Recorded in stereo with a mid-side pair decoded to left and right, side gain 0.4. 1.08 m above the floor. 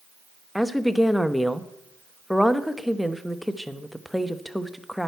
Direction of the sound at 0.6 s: 5° left.